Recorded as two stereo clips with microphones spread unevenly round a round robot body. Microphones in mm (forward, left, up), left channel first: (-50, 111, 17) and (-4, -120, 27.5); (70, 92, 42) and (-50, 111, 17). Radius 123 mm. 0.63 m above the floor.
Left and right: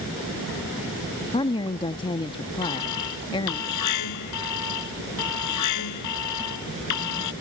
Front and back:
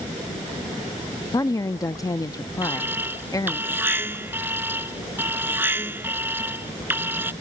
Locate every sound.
1.3 s a woman speaking: 55° left
2.6 s an alarm: 100° left